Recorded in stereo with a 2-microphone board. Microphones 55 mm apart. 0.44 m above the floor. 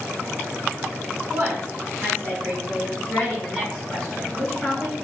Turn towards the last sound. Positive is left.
turn(degrees=20)  # may be behind; listen again after turning